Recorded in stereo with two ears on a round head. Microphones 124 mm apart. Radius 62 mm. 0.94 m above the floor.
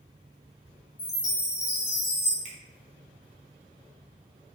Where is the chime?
20° left (ahead or behind), 0.7 m.